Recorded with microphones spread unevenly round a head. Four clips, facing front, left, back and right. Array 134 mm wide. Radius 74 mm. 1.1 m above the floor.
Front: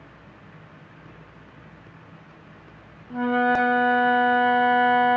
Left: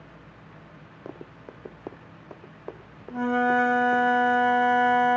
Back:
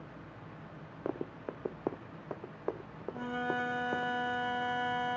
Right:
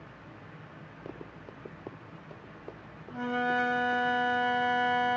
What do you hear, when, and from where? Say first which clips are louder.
1.1 s running footsteps: left 4 dB, back 9 dB; 170° left; by 4.1 s 155° left
3.1 s a flute: left 7 dB, front 14 dB; 30° left